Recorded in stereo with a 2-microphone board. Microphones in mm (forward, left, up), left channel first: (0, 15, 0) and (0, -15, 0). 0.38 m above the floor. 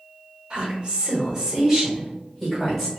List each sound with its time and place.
0.5 s a woman speaking: 35° right (ahead or behind), 1.1 m; by 2.9 s 5° left (ahead or behind), 1.6 m